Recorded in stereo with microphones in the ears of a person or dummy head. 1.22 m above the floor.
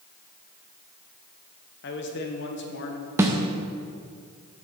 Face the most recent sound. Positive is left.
turn(degrees=-10)  # may be behind; listen again after turning